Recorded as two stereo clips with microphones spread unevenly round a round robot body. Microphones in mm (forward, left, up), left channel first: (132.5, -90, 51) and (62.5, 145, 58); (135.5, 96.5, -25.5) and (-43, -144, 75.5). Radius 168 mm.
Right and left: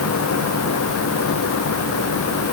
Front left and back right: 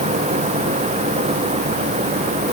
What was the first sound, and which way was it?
Only background noise.